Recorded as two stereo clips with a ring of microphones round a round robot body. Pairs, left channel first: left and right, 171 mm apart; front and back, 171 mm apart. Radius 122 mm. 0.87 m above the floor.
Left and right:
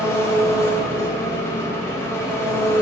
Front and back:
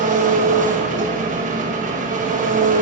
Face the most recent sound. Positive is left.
turn(degrees=165)